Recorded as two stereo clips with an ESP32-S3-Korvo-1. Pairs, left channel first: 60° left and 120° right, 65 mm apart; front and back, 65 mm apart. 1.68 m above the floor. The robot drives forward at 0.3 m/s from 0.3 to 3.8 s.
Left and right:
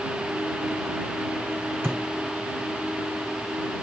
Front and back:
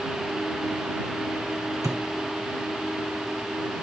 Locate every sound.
1.8 s a thud: 175° right, 3 m